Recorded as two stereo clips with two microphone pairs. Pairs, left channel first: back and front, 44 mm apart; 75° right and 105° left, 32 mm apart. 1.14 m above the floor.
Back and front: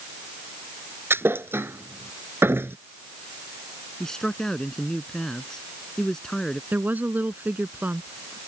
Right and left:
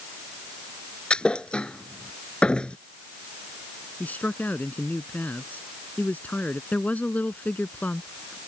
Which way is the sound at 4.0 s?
105° right.